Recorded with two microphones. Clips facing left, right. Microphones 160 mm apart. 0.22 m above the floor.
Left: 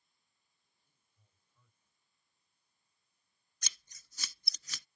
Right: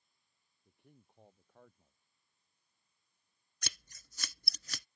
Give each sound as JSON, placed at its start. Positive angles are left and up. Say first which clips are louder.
{"t": 0.7, "sound": "a man speaking", "louder": "right 25 dB", "side_deg": -70}
{"t": 3.6, "sound": "scissors", "louder": "right 8 dB", "side_deg": -60}